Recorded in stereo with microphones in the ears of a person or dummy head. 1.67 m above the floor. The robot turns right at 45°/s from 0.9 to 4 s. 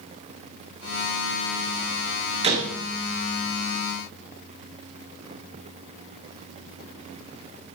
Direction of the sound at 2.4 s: 30° right (ahead or behind).